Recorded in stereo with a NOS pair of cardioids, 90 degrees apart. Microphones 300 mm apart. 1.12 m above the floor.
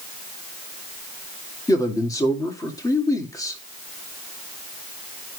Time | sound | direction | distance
1.7 | a man speaking | 10° left | 2 m